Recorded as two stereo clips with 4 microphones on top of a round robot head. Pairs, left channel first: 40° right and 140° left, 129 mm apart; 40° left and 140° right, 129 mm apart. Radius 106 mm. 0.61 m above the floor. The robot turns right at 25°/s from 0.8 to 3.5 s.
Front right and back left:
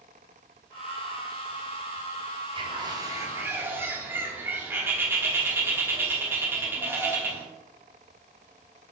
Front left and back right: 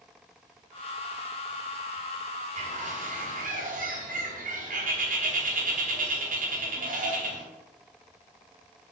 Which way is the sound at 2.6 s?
170° right.